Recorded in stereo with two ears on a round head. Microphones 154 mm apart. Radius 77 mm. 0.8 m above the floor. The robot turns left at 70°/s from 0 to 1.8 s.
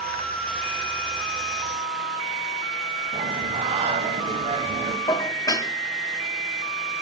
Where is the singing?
40° right (ahead or behind), 1.5 m.